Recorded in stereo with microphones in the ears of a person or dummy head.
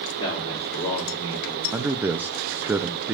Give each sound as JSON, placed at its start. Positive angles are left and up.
{"t": 0.2, "sound": "a man speaking", "side_deg": 35, "distance_m": 5.0}
{"t": 1.7, "sound": "a man speaking", "side_deg": -5, "distance_m": 0.8}